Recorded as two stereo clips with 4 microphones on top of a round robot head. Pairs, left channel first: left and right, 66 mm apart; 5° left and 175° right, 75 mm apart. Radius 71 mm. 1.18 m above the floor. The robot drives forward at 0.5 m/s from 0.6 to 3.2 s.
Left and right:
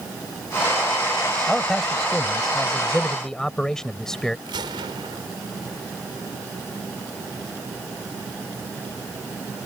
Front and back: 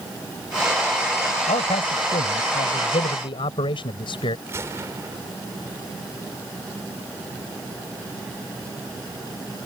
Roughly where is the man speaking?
Ahead.